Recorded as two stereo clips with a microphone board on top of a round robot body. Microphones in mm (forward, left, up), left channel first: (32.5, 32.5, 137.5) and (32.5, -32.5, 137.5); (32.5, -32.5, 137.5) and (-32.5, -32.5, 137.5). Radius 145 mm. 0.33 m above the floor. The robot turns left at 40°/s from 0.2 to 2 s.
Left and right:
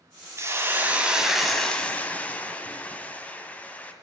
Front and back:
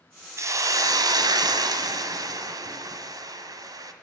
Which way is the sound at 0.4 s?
140° right.